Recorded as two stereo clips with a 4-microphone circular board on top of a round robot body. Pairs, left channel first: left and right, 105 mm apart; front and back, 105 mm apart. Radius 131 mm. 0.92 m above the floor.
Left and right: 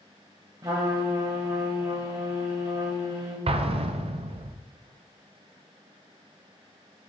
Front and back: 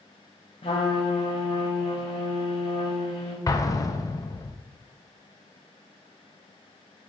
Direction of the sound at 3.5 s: 60° right.